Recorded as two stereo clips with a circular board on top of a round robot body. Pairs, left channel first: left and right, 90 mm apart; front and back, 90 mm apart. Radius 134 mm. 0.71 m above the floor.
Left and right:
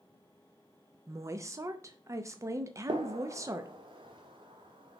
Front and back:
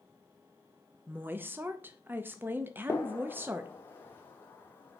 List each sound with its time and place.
1.1 s a woman speaking: 125° right, 0.7 m
2.9 s a gunshot: 65° right, 1.2 m